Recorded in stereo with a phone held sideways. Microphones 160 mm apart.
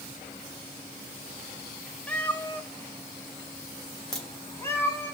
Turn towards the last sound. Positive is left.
turn(degrees=0)  # may be behind; listen again after turning